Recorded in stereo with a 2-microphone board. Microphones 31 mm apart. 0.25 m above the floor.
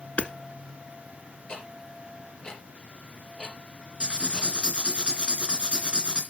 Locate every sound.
0.2 s hammering: 60° left (ahead or behind), 1.0 m
1.5 s ticking: 40° left (ahead or behind), 4 m
4.0 s writing: 40° right (ahead or behind), 3 m